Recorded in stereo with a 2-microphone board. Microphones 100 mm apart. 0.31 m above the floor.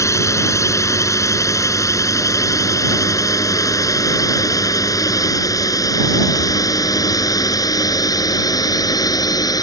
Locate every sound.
0.0 s a drone: 35° left (ahead or behind); by 9.6 s 45° left (ahead or behind)